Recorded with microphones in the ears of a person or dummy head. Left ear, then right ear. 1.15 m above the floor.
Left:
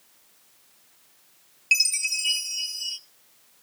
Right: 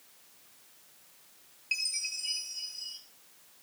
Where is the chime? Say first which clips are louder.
Left 11 dB; 45° left (ahead or behind), 0.8 m.